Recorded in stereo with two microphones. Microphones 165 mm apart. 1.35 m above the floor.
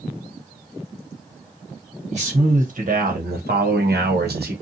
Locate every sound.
2.1 s a man speaking: 45° right (ahead or behind), 1.5 m; by 4.5 s 70° right (ahead or behind), 0.9 m